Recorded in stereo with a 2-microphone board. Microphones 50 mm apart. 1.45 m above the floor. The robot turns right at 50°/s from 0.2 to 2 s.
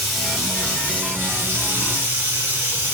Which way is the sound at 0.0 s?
Straight behind.